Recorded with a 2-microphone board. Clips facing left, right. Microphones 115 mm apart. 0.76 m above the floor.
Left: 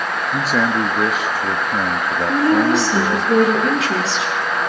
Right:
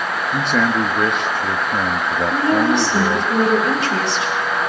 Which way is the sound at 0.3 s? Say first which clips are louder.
Even; 5° left (ahead or behind).